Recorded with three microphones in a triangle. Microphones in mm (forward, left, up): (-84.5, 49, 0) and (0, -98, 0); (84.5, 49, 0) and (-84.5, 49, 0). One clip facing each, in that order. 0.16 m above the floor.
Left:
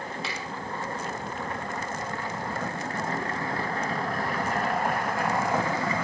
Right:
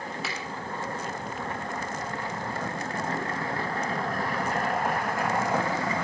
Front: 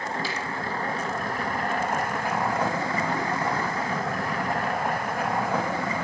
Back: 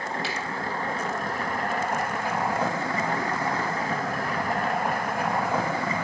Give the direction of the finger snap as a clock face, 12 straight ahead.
6 o'clock.